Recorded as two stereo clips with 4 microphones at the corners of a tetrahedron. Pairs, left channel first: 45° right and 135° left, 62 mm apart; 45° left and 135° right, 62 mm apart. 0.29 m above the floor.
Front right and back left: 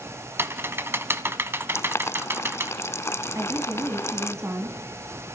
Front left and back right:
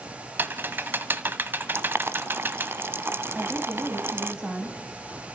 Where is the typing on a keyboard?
175° left, 0.9 m.